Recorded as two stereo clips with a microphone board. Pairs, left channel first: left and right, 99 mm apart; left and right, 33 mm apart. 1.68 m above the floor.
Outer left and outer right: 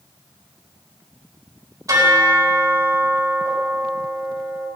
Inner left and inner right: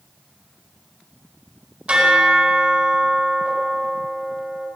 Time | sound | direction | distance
1.9 | a bell | 35° right (ahead or behind) | 5 m